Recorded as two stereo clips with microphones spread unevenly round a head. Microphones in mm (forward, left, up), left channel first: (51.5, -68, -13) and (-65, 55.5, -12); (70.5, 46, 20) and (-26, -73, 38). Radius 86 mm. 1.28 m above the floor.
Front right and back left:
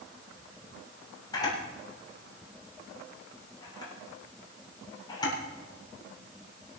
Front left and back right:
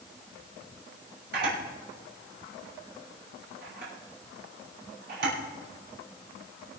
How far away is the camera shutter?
About 7 m.